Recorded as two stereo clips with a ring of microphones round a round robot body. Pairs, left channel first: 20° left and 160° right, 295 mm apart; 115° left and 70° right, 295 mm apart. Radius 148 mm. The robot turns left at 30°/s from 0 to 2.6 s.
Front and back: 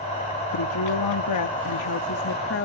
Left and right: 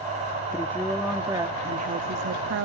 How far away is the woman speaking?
About 0.9 m.